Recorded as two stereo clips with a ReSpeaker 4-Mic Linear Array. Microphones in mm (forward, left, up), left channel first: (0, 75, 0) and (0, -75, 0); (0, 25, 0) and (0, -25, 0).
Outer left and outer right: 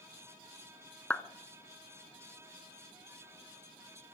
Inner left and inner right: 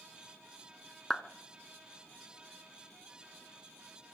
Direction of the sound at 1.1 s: 10° left (ahead or behind).